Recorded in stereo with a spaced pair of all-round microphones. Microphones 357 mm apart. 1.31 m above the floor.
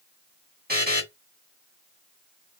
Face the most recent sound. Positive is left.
turn(degrees=-25)  # may be behind; listen again after turning